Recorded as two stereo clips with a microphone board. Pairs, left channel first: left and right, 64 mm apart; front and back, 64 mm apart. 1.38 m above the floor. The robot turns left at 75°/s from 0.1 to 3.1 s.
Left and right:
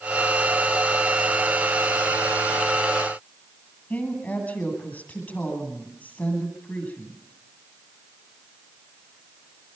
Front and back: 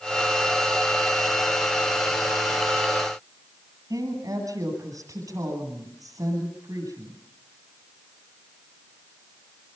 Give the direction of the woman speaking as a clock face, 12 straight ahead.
7 o'clock.